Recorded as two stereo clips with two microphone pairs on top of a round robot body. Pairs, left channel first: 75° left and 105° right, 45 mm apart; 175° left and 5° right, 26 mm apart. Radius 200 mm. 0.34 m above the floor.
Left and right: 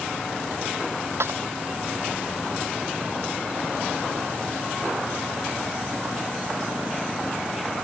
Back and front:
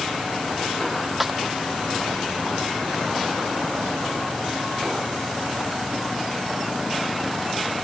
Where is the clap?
85° right.